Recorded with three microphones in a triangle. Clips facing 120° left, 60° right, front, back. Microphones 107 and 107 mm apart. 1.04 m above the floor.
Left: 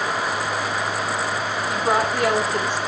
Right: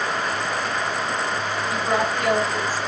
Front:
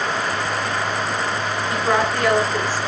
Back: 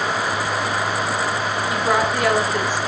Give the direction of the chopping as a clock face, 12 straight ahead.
No chopping in this recording.